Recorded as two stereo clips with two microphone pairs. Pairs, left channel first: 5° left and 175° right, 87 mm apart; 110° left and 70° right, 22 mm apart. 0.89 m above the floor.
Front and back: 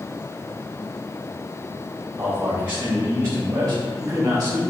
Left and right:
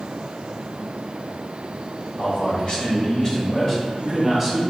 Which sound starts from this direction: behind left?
A man speaking, at 2.2 s.